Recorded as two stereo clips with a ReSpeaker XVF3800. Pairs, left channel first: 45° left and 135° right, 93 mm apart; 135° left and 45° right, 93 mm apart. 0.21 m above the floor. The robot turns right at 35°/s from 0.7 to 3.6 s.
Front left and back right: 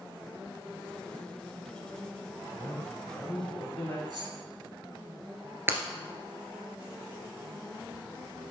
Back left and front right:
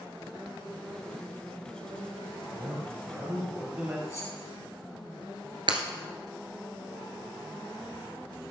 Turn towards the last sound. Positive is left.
turn(degrees=-70)